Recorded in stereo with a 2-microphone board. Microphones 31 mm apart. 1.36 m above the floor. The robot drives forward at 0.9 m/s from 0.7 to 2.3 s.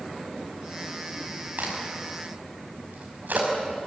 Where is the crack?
70° right (ahead or behind), 6 m; by 3.5 s 75° right (ahead or behind), 6 m.